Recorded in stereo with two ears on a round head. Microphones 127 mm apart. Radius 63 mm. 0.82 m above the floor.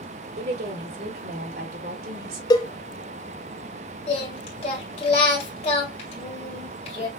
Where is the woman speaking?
80° right, 3 m; by 2.4 s 75° right (ahead or behind), 2.5 m.